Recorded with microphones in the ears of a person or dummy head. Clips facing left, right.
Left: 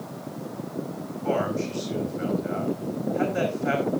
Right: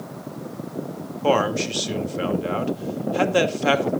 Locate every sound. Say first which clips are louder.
1.2 s a man speaking: right 5 dB; 85° right, 2 m